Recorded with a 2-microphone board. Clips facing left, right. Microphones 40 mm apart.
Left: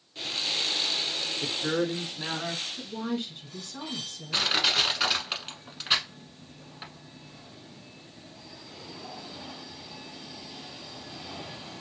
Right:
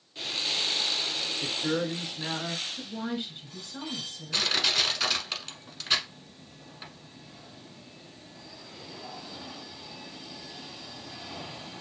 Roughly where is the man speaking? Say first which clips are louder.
Left 2 dB; left.